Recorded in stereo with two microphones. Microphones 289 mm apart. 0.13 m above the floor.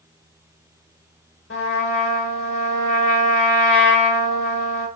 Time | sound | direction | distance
1.5 | a trumpet | 45° left (ahead or behind) | 1.2 m